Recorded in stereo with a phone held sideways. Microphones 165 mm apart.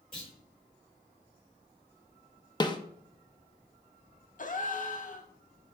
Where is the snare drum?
25° left (ahead or behind), 0.7 m.